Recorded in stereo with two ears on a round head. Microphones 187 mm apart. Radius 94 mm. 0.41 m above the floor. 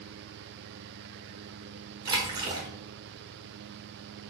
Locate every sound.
2.0 s a splash: 20° right (ahead or behind), 0.8 m